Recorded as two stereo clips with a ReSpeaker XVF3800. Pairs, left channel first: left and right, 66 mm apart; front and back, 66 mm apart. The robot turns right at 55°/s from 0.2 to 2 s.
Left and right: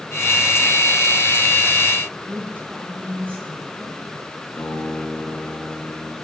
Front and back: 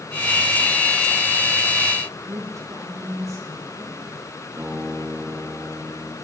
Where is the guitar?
135° left, 3.5 m.